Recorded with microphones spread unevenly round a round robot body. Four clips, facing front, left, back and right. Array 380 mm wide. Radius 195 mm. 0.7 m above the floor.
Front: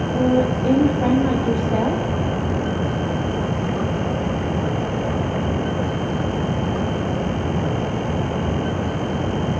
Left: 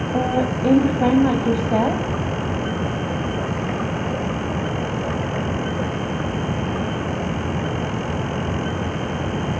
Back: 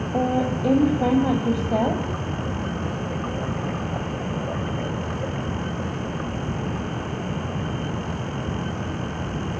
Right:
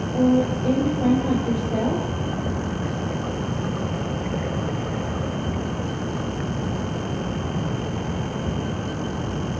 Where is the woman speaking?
110° left, 5 m.